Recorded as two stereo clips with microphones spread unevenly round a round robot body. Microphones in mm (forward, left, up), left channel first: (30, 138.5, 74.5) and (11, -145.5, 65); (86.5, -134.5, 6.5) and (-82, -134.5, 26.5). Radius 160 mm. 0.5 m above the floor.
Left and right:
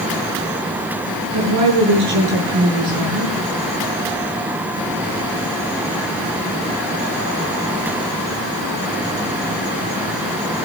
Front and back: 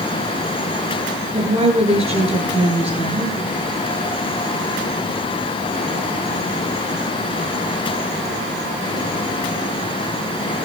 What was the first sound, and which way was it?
A woman speaking, 125° right.